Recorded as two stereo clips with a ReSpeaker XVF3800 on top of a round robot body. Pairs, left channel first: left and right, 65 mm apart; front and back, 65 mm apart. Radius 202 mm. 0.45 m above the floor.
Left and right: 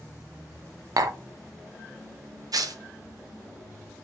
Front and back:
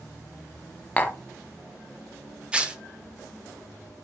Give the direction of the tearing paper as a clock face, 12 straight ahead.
3 o'clock.